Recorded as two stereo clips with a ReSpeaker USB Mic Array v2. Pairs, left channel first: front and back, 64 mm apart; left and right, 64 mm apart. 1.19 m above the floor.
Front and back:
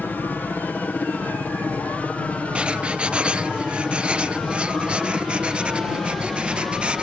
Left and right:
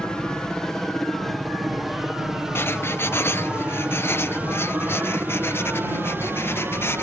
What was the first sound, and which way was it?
A helicopter, 25° left.